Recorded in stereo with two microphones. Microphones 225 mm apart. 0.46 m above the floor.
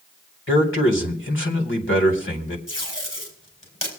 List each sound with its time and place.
0.5 s a man speaking: 60° left (ahead or behind), 2.5 m
2.7 s tape being pulled: 65° left (ahead or behind), 4.5 m